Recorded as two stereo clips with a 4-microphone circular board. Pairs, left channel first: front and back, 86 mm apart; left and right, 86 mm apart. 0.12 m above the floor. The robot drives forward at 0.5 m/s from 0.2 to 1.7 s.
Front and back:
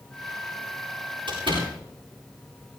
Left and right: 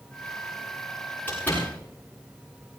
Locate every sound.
1.3 s a door slam: 160° left, 8.5 m